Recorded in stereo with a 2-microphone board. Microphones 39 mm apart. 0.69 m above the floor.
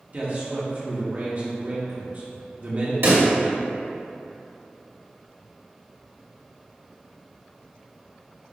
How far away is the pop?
About 1.4 m.